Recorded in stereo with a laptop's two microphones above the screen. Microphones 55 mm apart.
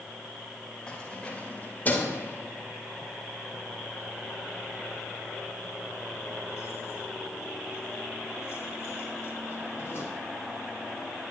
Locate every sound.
0.9 s keys jangling: 15° left (ahead or behind), 3 m; by 10.1 s 55° left (ahead or behind), 9.5 m